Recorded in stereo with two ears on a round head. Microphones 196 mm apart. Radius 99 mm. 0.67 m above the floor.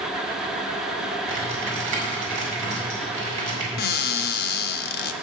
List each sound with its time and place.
1.3 s typing on a keyboard: 35° right (ahead or behind), 4.5 m
3.8 s a cupboard door: 45° left (ahead or behind), 0.7 m